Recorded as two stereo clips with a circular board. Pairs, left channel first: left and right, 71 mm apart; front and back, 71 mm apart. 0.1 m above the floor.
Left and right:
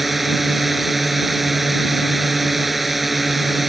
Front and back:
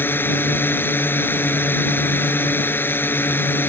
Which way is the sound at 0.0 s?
5° right.